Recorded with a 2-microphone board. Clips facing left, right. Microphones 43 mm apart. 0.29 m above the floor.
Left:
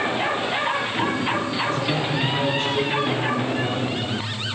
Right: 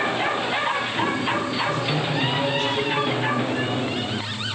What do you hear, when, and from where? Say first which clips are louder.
1.7 s a man speaking: left 1 dB; 45° left (ahead or behind), 6 m; by 4.3 s 15° left (ahead or behind), 7.5 m